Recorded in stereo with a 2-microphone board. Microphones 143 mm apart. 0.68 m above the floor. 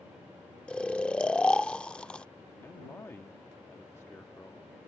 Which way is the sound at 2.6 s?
20° left (ahead or behind).